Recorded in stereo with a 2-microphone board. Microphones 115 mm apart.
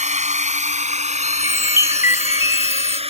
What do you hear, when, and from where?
0.0 s a drone: 85° right; by 3.1 s 55° right (ahead or behind)
1.2 s a chime: 25° right (ahead or behind)